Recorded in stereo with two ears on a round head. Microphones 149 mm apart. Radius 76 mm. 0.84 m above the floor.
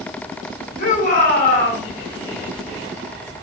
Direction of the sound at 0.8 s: 55° left (ahead or behind).